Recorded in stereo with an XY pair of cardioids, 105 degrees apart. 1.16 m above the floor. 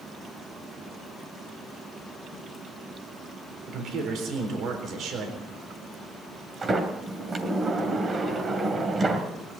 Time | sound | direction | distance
3.7 | a man speaking | 70° right | 4 m
6.6 | a sliding door | 35° right | 2.5 m